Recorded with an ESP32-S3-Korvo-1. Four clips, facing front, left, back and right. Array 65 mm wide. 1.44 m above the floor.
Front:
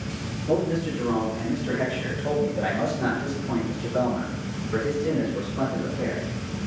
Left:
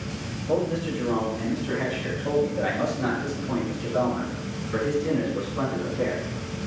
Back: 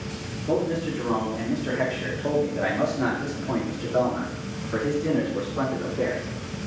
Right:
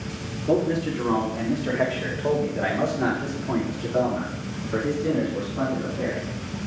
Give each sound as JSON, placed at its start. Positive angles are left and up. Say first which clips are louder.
{"t": 0.5, "sound": "a man speaking", "louder": "right 3 dB, front 1 dB", "azimuth_deg": -105, "distance_m": 4.0}